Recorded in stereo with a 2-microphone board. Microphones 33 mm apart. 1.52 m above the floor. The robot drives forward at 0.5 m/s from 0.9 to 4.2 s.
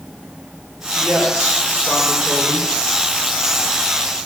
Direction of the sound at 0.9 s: 55° right (ahead or behind).